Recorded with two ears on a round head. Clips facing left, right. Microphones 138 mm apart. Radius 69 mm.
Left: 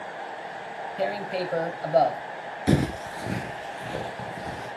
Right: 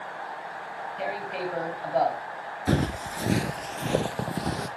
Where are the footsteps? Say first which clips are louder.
Left 3 dB; 20° left (ahead or behind), 0.7 m; by 4.7 s 70° right (ahead or behind), 2 m.